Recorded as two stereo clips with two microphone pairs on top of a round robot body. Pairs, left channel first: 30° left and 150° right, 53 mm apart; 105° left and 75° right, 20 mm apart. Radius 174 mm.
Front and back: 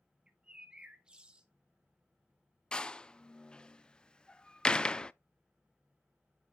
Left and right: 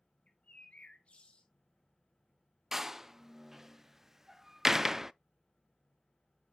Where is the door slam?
35° right, 0.6 m.